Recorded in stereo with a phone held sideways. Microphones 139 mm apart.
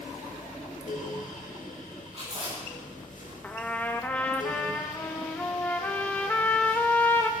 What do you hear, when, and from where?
0.0 s a fan: 65° left (ahead or behind), 1.2 m
2.1 s chewing: 50° right (ahead or behind), 7.5 m
3.4 s a trumpet: 10° left (ahead or behind), 1.0 m